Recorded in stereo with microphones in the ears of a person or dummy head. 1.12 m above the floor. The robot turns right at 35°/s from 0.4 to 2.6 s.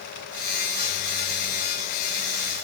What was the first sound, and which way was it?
Only background noise.